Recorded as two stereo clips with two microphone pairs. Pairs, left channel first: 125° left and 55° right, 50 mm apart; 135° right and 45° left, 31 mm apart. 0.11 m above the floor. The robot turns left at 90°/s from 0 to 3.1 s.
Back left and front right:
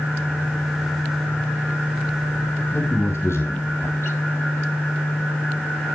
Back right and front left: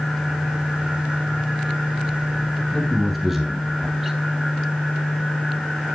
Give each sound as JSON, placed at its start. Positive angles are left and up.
{"t": 2.7, "sound": "a man speaking", "azimuth_deg": 160, "distance_m": 3.0}